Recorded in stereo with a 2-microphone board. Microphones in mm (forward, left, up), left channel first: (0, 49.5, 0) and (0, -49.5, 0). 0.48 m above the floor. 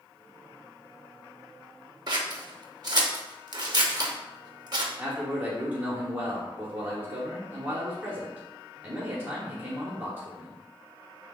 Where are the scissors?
45° right (ahead or behind), 0.7 m.